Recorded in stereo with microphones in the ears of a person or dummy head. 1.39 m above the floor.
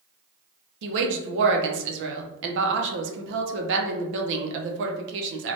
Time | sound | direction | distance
0.8 | a woman speaking | 65° right (ahead or behind) | 0.6 m